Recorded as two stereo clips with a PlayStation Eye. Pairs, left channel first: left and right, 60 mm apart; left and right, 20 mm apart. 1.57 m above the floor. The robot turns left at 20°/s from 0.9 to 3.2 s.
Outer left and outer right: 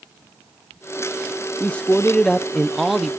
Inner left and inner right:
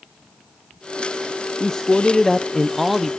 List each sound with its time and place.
1.6 s a man speaking: 25° left, 0.7 m; by 3.1 s 5° right, 0.7 m